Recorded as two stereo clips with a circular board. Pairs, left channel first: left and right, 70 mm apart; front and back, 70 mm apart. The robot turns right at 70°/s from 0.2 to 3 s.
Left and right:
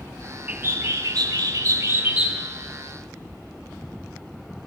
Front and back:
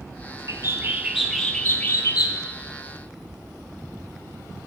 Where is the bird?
155° right, 1.0 m; by 2.4 s 20° right, 1.0 m.